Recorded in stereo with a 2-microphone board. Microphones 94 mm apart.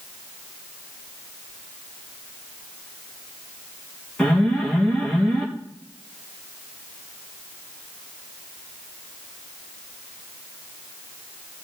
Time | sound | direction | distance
4.2 | an alarm | 10° left (ahead or behind) | 4 m